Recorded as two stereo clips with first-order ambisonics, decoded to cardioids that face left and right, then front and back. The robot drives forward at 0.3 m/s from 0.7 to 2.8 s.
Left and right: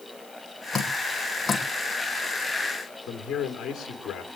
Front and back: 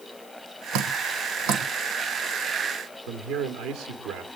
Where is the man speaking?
150° left, 2.5 m.